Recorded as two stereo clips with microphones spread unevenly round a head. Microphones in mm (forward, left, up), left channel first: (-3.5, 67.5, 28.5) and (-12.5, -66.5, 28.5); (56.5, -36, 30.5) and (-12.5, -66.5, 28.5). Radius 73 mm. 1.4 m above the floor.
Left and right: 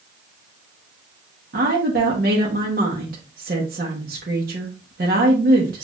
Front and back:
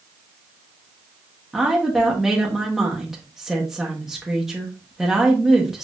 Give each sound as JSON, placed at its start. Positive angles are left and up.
{"t": 1.5, "sound": "a woman speaking", "azimuth_deg": -70, "distance_m": 0.9}